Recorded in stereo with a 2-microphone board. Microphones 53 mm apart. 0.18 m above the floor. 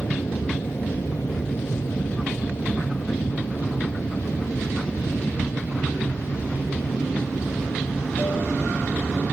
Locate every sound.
0.0 s an aircraft: 70° left (ahead or behind)